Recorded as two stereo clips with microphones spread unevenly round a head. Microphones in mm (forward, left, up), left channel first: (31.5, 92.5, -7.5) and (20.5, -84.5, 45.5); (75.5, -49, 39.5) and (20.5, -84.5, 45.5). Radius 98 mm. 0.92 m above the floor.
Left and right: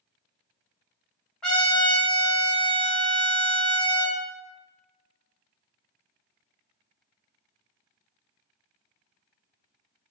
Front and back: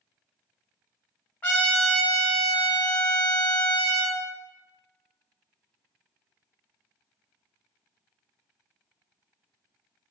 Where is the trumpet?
20° right, 0.6 m.